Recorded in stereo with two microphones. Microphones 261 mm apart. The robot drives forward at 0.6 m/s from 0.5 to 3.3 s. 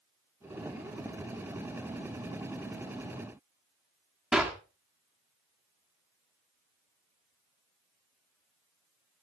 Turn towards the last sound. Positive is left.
turn(degrees=-5)  # may be behind; listen again after turning